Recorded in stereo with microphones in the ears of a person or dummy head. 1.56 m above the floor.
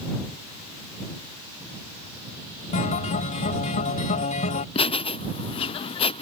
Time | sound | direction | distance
2.7 | a guitar | 35° left (ahead or behind) | ?
4.8 | laughter | 35° left (ahead or behind) | ?